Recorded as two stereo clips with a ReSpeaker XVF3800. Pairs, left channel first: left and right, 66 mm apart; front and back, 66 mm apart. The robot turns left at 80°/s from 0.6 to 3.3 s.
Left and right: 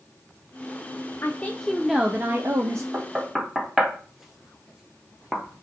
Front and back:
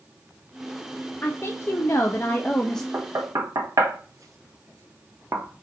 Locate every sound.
1.2 s a woman speaking: 45° left, 0.5 m; by 2.8 s 85° right, 0.5 m
2.9 s knocking: 145° right, 0.6 m; by 5.5 s 170° right, 0.6 m